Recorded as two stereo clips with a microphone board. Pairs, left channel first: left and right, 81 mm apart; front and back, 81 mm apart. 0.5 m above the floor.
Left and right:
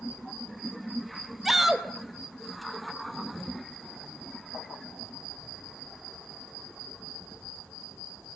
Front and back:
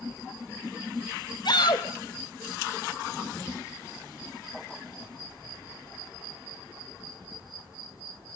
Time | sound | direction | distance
1.4 | a shout | 5° right | 2.5 m